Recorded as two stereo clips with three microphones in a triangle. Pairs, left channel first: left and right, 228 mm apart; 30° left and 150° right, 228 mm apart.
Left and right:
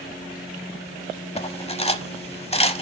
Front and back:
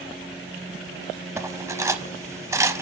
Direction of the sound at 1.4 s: 140° left.